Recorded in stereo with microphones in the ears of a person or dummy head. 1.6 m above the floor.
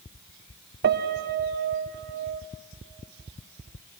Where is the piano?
55° right (ahead or behind), 0.8 m.